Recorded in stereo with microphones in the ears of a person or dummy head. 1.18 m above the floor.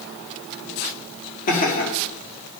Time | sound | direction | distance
1.5 | laughter | 45° left (ahead or behind) | 1.8 m